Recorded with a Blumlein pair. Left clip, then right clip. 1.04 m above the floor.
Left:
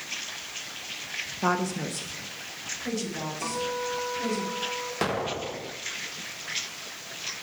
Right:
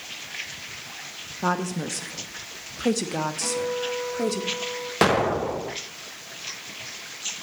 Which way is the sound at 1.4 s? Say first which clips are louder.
Right 1 dB; straight ahead.